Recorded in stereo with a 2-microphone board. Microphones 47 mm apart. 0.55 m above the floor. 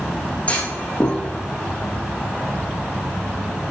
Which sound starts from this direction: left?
A clunk, at 0.5 s.